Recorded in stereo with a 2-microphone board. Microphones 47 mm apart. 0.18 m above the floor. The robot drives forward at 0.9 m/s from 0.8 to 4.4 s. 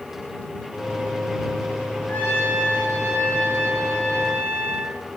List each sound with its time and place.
2.1 s a trumpet: 45° left (ahead or behind), 3 m; by 5.0 s 30° left (ahead or behind), 4 m